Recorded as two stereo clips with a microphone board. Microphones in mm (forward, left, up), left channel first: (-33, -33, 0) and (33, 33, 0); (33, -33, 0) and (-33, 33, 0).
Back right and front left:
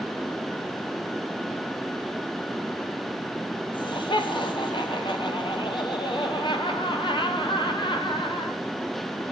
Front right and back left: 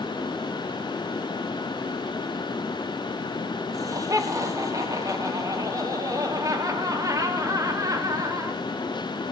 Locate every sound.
3.7 s laughter: 170° right, 1.4 m